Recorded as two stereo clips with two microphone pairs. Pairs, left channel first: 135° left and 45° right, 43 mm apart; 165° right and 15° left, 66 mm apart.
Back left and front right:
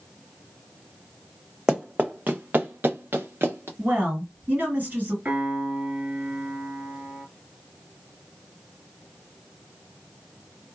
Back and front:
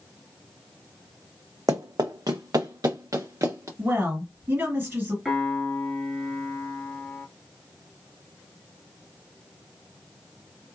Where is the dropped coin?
I don't hear a dropped coin.